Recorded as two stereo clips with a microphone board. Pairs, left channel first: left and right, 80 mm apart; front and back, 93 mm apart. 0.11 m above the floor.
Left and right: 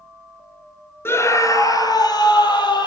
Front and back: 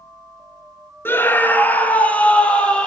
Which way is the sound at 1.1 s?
50° left.